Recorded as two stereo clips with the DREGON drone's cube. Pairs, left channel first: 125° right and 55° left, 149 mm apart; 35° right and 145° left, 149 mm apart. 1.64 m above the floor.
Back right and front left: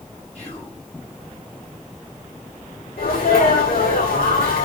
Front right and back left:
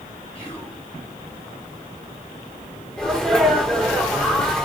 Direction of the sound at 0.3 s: 85° right.